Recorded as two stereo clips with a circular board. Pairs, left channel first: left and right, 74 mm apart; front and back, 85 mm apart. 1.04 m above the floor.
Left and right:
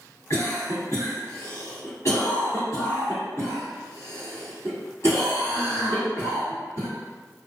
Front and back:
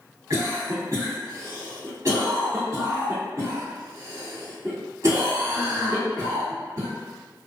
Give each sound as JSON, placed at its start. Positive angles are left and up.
{"t": 0.3, "sound": "a cough", "azimuth_deg": 130, "distance_m": 1.5}